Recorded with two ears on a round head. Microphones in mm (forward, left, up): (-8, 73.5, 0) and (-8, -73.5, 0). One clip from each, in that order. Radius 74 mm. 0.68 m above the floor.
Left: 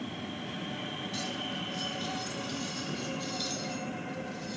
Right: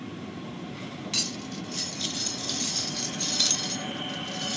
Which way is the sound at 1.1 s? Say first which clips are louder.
Right 8 dB; 60° right (ahead or behind).